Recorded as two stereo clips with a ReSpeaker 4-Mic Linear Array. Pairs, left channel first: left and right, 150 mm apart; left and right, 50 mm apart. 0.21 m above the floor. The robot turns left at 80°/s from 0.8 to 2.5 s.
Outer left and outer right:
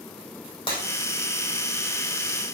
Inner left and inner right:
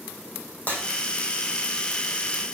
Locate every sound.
0.7 s breaking glass: 30° left (ahead or behind), 4.5 m